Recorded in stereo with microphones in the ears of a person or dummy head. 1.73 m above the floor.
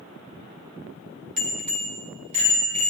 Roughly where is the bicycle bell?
Right.